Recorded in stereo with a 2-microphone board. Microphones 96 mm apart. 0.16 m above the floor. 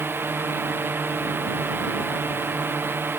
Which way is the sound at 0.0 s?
20° right (ahead or behind).